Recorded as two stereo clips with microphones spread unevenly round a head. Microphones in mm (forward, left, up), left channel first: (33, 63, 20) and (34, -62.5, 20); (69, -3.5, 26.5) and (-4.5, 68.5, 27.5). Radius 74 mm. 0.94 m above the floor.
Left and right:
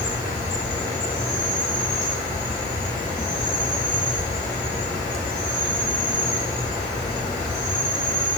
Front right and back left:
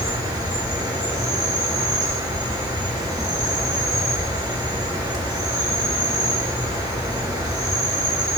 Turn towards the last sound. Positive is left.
turn(degrees=90)